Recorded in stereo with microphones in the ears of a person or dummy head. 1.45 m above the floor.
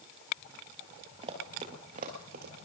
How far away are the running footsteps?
About 2.0 m.